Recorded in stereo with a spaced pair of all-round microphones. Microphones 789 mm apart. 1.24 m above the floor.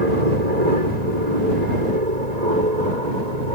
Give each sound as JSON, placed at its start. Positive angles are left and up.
{"t": 0.0, "sound": "an aircraft", "side_deg": -55}